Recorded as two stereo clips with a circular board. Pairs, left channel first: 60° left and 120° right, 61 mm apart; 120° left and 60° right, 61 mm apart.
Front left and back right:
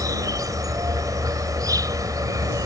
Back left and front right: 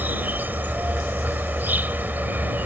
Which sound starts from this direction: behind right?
An insect, at 0.0 s.